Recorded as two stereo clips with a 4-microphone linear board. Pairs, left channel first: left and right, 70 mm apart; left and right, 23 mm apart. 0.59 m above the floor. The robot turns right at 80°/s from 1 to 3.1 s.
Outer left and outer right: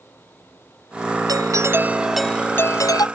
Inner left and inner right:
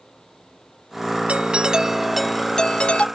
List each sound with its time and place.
1.3 s a doorbell: 70° right; by 3.1 s 70° left